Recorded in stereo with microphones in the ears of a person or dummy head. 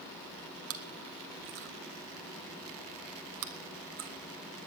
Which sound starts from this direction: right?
Chewing, at 0.7 s.